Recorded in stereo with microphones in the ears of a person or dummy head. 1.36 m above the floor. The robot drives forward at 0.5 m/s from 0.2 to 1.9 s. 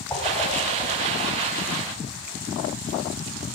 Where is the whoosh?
15° left (ahead or behind), 7.5 m.